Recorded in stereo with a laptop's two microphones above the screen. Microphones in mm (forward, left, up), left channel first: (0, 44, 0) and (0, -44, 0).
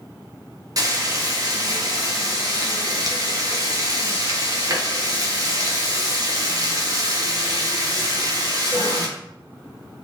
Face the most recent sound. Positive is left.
turn(degrees=-40)  # may be behind; listen again after turning